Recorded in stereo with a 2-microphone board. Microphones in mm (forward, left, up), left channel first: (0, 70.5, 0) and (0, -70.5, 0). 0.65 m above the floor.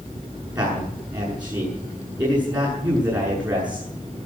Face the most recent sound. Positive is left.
turn(degrees=-25)  # may be behind; listen again after turning